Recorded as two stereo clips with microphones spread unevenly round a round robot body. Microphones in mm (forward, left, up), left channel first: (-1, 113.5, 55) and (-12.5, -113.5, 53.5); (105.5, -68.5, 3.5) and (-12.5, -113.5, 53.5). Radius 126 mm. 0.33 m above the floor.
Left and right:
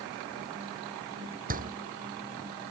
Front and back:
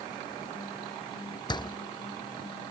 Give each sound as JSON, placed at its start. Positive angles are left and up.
{"t": 1.5, "sound": "a door slam", "azimuth_deg": -35}